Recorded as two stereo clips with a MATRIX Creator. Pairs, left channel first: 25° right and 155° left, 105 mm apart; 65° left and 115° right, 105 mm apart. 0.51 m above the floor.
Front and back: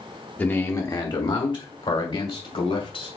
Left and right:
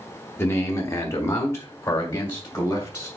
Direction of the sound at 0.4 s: 30° left.